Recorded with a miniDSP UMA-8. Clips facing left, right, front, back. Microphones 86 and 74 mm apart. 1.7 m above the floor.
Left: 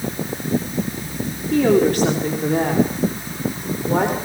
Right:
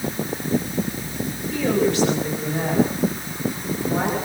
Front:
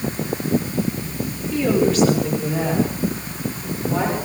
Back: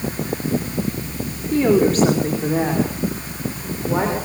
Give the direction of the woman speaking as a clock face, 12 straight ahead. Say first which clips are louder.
Left 5 dB, back 3 dB; 8 o'clock.